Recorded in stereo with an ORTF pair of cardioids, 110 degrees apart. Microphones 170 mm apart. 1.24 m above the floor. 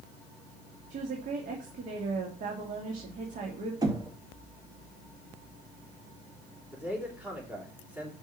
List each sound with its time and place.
0.9 s a woman speaking: 50° right, 2 m
3.8 s knocking: 25° right, 2 m
6.7 s a man speaking: 10° right, 3.5 m